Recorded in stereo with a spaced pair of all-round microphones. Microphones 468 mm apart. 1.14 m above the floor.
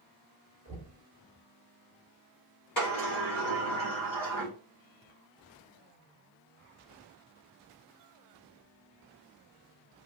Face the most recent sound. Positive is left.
turn(degrees=65)  # may be behind; listen again after turning